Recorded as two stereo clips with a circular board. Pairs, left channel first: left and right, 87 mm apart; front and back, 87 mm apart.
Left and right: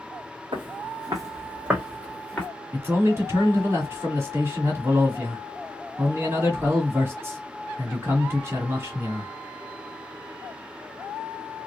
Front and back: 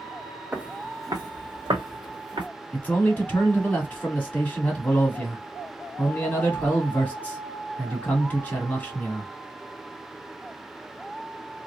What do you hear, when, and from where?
0.5 s footsteps: 100° right, 0.9 m; by 2.5 s 170° left, 1.4 m
2.7 s a man speaking: 60° right, 1.4 m